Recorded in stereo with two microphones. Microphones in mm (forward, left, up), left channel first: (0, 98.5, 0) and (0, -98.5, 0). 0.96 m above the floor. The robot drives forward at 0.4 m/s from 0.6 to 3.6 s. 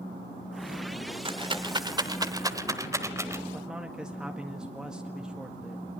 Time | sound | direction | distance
1.2 | a rattle | 25° right (ahead or behind) | 0.9 m
3.5 | a man speaking | 5° right (ahead or behind) | 1.7 m